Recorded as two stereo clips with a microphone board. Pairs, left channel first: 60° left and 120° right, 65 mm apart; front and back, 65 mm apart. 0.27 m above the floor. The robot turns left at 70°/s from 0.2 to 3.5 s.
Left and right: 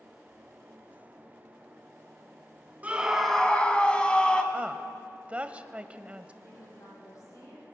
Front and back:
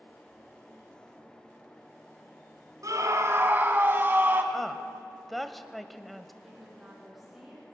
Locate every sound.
2.8 s a scream: 175° left, 2.0 m; by 4.4 s 130° left, 2.0 m
4.5 s a woman speaking: 90° right, 1.0 m
6.4 s a woman speaking: 95° left, 8.5 m